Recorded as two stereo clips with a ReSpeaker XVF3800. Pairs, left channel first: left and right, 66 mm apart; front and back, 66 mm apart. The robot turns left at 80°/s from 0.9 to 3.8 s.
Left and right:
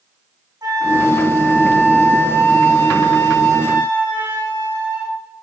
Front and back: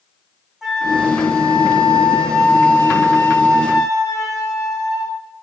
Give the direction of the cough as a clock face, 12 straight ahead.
No cough in this recording.